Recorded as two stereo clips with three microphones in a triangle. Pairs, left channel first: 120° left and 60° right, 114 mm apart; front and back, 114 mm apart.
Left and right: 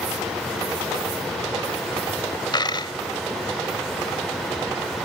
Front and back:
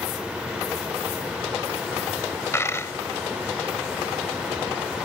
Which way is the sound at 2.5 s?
70° left.